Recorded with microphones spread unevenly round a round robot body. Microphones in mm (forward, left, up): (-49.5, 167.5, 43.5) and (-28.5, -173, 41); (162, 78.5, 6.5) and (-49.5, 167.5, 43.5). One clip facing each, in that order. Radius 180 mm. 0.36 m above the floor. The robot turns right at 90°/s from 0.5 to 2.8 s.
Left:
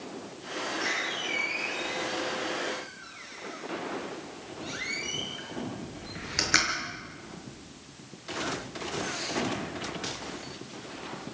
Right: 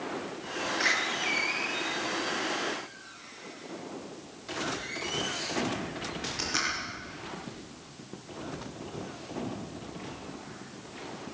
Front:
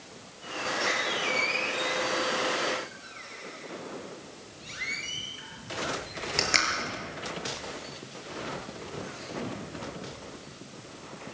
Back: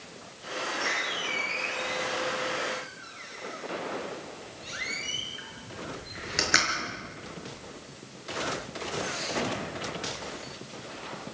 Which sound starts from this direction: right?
A door slam, at 0.8 s.